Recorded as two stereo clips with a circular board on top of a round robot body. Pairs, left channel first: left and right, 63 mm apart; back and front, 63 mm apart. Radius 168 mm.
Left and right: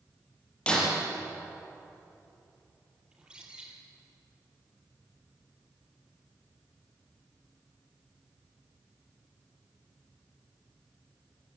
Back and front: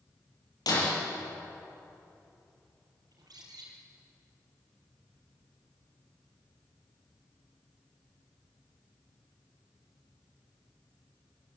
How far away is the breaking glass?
About 7.5 m.